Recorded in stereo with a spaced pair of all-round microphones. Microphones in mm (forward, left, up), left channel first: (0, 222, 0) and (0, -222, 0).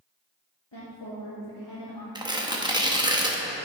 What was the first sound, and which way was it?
A woman speaking, 70° left (ahead or behind).